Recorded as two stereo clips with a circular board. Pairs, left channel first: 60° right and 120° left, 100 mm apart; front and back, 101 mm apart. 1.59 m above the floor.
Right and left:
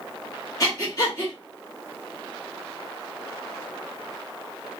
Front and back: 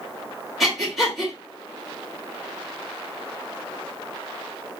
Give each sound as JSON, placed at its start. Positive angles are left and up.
{"t": 0.6, "sound": "breathing", "azimuth_deg": -95, "distance_m": 1.6}